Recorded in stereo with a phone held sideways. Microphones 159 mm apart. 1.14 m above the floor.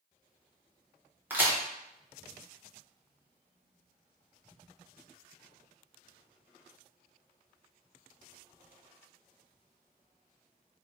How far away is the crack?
About 0.6 m.